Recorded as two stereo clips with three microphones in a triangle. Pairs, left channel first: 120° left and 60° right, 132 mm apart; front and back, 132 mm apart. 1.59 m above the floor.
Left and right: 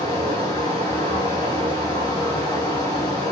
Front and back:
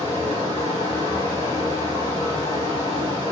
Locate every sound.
0.0 s running water: 155° left, 2.5 m